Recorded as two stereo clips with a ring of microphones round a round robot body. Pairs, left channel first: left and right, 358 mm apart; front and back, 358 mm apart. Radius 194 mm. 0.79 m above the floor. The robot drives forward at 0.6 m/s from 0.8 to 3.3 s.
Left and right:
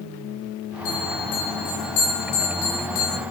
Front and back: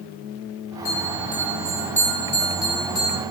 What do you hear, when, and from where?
0.8 s a bell: 80° left, 9 m; by 3.2 s 90° left, 8.5 m